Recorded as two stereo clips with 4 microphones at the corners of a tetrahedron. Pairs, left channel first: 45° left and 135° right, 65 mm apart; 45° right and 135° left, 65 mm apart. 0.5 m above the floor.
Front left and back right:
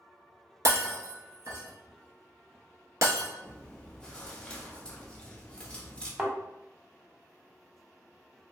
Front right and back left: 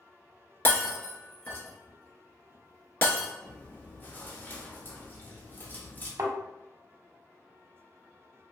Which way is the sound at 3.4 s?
20° right.